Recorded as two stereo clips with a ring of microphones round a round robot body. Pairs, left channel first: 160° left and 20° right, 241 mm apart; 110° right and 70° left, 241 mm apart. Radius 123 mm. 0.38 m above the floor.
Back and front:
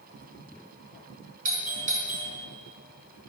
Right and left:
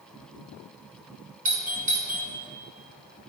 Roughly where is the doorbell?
Ahead left.